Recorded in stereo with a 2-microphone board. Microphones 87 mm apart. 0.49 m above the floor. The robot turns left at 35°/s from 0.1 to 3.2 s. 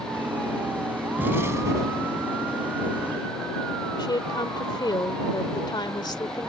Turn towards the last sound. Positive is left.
turn(degrees=55)  # may be behind; listen again after turning